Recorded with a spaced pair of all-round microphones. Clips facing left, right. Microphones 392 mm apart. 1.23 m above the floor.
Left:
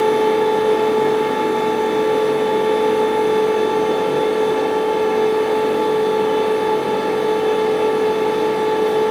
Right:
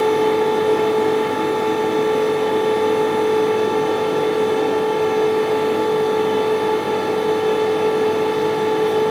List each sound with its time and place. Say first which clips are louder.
0.0 s a fan: left 1 dB; 65° left (ahead or behind), 0.8 m